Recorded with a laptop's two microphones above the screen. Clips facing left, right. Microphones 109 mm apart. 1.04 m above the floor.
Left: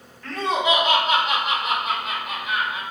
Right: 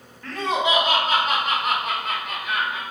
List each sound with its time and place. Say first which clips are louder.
0.2 s laughter: left 1 dB; 10° right (ahead or behind), 1.8 m; by 2.8 s 65° right (ahead or behind), 3.5 m